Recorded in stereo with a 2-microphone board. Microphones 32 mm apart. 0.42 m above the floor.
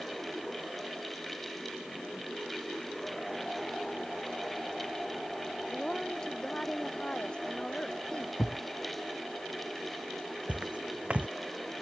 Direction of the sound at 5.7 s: 20° left (ahead or behind).